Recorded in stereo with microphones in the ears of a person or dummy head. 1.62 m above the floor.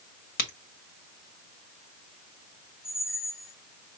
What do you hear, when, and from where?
0.4 s a crack: 50° left (ahead or behind), 1.5 m
2.8 s a squeak: 35° right (ahead or behind), 3.5 m